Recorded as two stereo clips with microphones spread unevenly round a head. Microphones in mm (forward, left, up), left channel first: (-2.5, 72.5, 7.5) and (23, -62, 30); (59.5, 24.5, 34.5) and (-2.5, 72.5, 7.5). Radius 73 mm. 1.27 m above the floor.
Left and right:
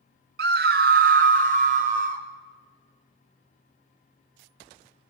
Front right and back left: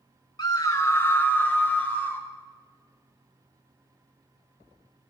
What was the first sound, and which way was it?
A scream, 95° right.